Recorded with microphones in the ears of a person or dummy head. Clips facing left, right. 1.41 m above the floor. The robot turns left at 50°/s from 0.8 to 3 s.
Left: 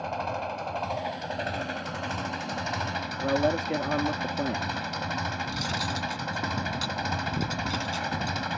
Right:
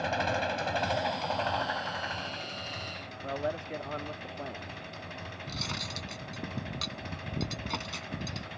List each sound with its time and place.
0.0 s an engine running: 165° right; by 8.6 s 85° left
3.2 s a man speaking: 70° left (ahead or behind)
5.5 s cutlery clinking: 15° left (ahead or behind)